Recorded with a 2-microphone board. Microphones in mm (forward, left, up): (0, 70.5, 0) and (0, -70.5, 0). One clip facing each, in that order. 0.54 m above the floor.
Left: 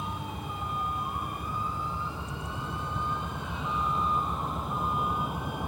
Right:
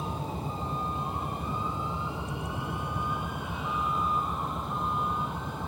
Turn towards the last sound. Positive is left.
turn(degrees=15)  # may be behind; listen again after turning